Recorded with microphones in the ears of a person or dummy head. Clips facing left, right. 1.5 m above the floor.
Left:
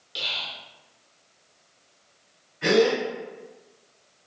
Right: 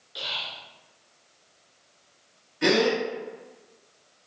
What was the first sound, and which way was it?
Whispering, 40° left (ahead or behind).